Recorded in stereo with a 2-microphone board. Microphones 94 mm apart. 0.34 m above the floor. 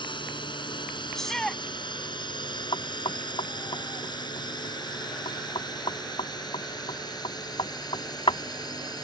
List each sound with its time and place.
0.0 s a drone: 60° left (ahead or behind); by 9.0 s 45° left (ahead or behind)
1.1 s a shout: 5° left (ahead or behind)
2.7 s knocking: 65° left (ahead or behind)